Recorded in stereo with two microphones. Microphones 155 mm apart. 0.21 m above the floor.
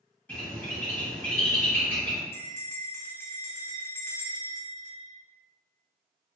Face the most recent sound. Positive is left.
turn(degrees=15)  # may be behind; listen again after turning